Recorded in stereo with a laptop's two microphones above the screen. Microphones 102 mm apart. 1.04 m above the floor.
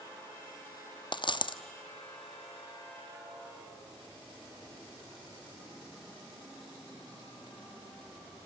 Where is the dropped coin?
50° left (ahead or behind), 0.7 m.